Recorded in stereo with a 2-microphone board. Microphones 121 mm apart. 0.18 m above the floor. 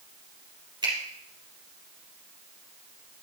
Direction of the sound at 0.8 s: 40° right (ahead or behind).